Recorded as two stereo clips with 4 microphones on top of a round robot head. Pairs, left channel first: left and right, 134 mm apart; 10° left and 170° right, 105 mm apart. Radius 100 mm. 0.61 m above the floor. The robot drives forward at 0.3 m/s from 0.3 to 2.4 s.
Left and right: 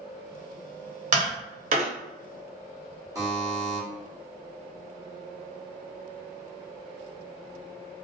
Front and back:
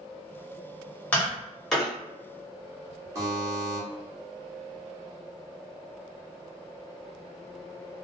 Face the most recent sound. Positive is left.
turn(degrees=-135)